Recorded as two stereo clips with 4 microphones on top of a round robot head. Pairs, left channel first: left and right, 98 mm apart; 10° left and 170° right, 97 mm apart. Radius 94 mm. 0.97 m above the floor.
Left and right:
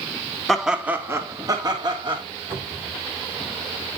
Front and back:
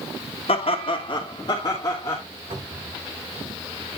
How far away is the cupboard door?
About 8 m.